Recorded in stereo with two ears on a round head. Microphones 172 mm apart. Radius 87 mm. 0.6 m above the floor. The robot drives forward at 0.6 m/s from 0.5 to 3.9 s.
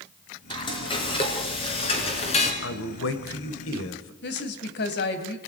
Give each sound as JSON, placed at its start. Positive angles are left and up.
{"t": 0.5, "sound": "frying", "side_deg": 25, "distance_m": 4.5}
{"t": 2.6, "sound": "a man speaking", "side_deg": 65, "distance_m": 2.5}
{"t": 4.2, "sound": "a woman speaking", "side_deg": 60, "distance_m": 3.0}